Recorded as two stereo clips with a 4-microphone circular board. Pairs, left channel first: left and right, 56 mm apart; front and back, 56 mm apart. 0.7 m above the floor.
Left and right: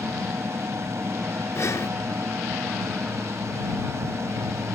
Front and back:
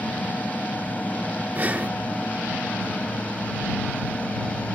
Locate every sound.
0.0 s an aircraft: 60° right; by 4.8 s 65° right
1.6 s breathing: 120° left